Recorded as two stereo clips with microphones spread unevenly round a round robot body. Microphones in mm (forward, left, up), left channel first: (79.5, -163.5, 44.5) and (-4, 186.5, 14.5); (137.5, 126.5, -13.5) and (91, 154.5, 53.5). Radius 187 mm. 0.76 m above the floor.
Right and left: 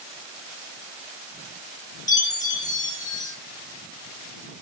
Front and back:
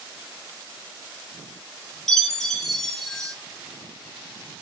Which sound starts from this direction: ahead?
A chime, at 2.1 s.